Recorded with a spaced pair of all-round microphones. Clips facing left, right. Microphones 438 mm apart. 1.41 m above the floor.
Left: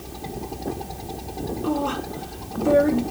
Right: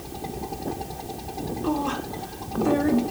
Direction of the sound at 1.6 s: Centre (ahead or behind).